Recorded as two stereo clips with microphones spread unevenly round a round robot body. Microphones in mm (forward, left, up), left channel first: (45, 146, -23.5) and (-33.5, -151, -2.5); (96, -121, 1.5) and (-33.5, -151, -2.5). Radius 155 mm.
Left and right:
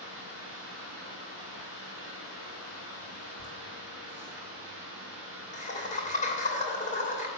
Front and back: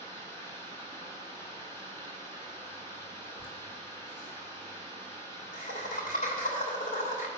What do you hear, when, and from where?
0.0 s running water: 55° right, 3.5 m
3.4 s laughter: 10° left, 2.5 m